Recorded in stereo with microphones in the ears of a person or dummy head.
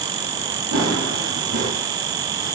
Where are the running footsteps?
65° right (ahead or behind), 6.5 m.